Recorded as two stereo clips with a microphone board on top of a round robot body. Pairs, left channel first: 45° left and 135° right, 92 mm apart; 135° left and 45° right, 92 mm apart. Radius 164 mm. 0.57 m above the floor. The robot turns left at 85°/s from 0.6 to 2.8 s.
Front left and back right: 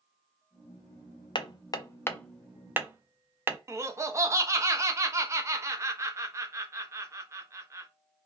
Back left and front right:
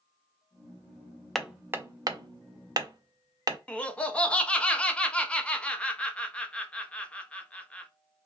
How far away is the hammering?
About 0.6 m.